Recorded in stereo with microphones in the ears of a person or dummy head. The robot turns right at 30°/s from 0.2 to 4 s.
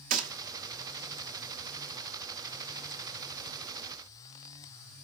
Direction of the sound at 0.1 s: 40° right (ahead or behind).